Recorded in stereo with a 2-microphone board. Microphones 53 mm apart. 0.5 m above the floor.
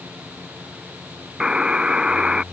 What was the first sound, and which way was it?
A buzzer, 15° right (ahead or behind).